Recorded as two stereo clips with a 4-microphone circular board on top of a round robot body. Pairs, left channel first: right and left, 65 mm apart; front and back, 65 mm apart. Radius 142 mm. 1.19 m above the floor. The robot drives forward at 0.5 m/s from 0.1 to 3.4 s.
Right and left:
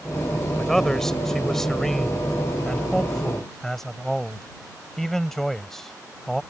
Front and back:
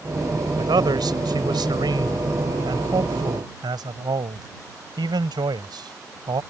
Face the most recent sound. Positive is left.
turn(degrees=-175)